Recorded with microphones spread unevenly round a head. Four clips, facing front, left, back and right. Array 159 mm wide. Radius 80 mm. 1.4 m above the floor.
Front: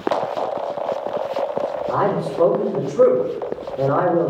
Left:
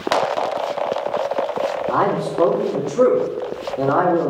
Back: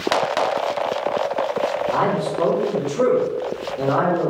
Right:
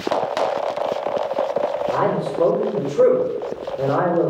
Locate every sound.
1.9 s a man speaking: 80° left, 3 m